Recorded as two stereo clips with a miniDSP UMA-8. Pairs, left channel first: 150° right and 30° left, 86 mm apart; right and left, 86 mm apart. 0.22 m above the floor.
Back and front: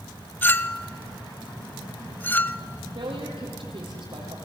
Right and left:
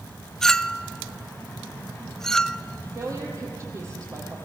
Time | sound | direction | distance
0.4 | a clink | 160° right | 0.5 m
3.0 | a woman speaking | 35° left | 6.5 m